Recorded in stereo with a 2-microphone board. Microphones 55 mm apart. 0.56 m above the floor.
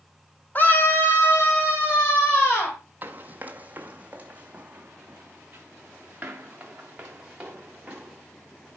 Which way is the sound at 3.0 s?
30° right (ahead or behind).